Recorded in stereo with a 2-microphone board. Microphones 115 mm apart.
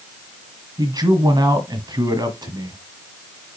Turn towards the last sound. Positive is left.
turn(degrees=-35)  # may be behind; listen again after turning